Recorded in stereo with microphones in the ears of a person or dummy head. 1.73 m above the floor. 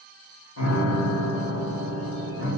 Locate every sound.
0.6 s a piano: 80° left, 1.5 m